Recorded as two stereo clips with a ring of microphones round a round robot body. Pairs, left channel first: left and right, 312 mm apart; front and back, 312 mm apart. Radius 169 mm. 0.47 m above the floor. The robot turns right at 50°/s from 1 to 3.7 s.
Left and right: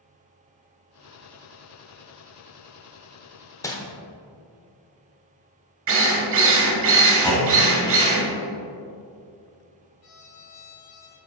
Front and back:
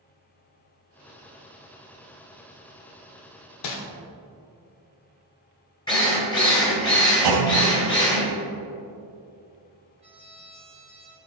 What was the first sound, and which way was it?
Crumpling, 10° left.